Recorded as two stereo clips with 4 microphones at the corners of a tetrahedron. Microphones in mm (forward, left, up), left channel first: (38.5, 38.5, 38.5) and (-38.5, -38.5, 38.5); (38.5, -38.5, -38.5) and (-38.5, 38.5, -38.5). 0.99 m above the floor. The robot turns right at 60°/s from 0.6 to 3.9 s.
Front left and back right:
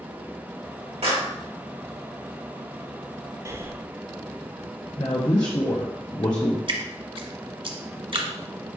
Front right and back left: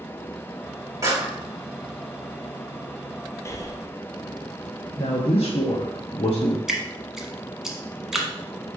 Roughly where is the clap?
Behind.